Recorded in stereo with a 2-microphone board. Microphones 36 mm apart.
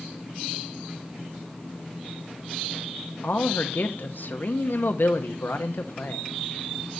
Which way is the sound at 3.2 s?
60° left (ahead or behind).